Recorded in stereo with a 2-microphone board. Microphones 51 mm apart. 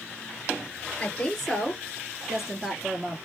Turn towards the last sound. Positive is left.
turn(degrees=-10)  # may be behind; listen again after turning